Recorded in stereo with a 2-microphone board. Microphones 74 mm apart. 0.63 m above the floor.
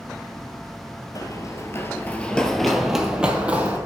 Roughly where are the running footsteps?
Left.